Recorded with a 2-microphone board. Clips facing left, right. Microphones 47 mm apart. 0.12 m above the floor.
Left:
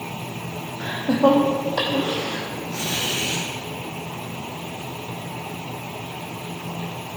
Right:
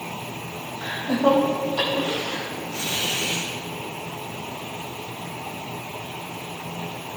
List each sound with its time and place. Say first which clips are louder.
0.8 s laughter: left 3 dB; 60° left (ahead or behind), 3 m; by 3.5 s 75° left (ahead or behind), 5 m